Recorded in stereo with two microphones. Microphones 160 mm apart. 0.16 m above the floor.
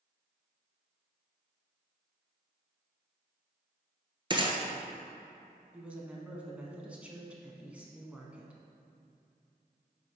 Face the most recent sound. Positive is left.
turn(degrees=-10)  # may be behind; listen again after turning